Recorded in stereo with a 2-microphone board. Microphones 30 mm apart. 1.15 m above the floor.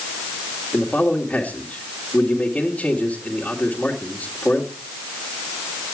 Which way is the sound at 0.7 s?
45° left (ahead or behind).